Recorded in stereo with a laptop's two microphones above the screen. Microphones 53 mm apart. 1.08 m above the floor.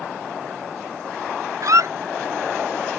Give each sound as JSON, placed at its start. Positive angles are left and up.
{"t": 1.6, "sound": "a squeak", "side_deg": -70}